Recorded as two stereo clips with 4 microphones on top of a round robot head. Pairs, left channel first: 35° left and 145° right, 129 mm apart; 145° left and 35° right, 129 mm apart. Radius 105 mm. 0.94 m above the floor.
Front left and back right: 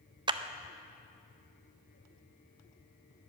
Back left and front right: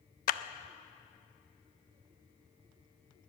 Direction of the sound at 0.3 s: 160° left.